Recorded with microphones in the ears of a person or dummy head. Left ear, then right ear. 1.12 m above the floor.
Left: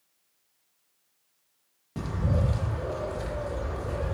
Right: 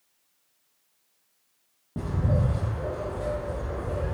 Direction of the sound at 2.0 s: 50° left (ahead or behind).